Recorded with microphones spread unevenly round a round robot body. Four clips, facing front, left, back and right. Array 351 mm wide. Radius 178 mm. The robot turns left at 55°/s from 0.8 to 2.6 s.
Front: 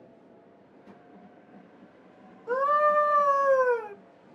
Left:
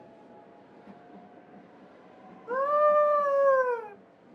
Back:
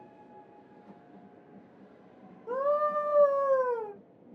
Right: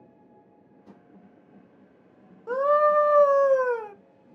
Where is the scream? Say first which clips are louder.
Right 3 dB, front 4 dB; 105° right, 1.0 m; by 3.9 s 115° right, 1.0 m.